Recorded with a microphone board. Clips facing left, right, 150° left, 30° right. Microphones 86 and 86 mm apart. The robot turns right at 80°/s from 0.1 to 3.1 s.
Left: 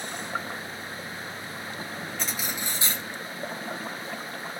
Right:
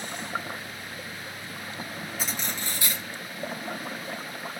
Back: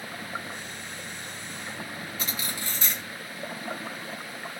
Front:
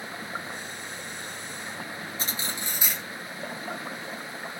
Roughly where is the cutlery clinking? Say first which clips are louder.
Even, front 1 dB; ahead.